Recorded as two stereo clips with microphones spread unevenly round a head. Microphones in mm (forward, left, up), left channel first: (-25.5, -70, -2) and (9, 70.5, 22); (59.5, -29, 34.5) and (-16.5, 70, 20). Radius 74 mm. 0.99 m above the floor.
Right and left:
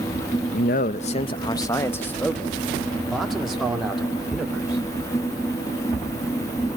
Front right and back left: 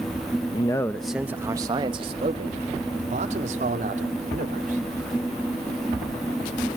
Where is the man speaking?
110° right, 0.6 m; by 4.8 s 160° left, 3 m.